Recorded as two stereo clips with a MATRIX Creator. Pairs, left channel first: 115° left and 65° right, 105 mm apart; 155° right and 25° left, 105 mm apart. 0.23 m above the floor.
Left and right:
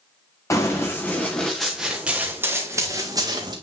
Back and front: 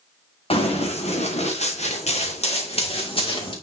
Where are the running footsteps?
175° left, 2.5 m; by 3.5 s 115° right, 3 m.